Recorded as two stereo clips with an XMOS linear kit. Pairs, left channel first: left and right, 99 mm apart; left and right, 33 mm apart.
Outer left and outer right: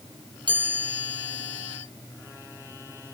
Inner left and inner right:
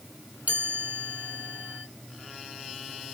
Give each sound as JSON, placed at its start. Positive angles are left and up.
{"t": 0.5, "sound": "a chime", "side_deg": -50, "distance_m": 3.0}